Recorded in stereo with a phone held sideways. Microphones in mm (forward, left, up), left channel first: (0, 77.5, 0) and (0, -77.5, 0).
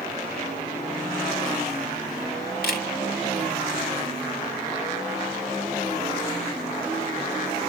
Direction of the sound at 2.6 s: 70° left (ahead or behind).